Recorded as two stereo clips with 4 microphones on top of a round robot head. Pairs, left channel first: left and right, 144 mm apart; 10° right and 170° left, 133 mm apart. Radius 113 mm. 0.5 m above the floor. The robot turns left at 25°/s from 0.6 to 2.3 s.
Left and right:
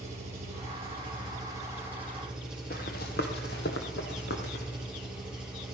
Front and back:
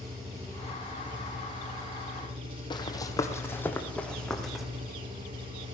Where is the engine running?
135° right, 7.5 m; by 5.7 s 175° right, 7.5 m.